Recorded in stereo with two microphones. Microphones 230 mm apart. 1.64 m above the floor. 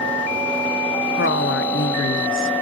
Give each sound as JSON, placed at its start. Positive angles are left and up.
{"t": 1.2, "sound": "a woman speaking", "side_deg": 60, "distance_m": 0.7}